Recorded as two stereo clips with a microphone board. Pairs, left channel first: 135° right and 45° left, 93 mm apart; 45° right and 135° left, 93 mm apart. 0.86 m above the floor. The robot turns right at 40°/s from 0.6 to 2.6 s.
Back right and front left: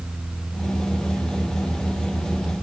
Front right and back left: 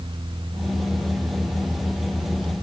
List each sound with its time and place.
Only background noise.